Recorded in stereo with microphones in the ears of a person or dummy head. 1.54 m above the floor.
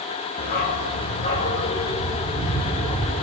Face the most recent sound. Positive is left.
turn(degrees=0)  # may be behind; listen again after turning